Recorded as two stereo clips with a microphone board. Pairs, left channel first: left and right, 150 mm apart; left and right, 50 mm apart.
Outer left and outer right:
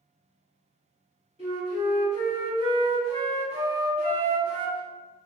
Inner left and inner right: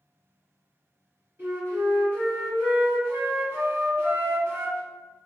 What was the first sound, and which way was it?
A flute, 40° right (ahead or behind).